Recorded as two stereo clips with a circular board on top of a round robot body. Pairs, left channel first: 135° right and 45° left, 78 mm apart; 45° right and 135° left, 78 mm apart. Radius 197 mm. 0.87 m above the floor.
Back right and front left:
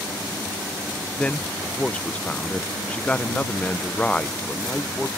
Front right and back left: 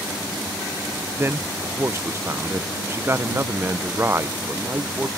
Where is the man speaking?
160° left.